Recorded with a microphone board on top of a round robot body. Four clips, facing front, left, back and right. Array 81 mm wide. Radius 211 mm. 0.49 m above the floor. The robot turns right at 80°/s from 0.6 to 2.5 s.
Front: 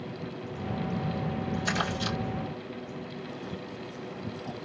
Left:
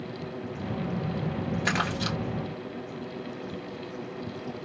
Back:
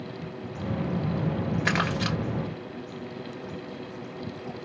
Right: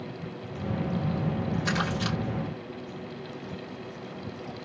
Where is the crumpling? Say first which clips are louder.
Left 2 dB, back 4 dB; 160° left, 1.9 m; by 2.2 s 155° right, 1.9 m.